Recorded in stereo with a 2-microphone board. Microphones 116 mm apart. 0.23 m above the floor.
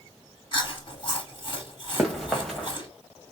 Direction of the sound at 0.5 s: 40° left (ahead or behind).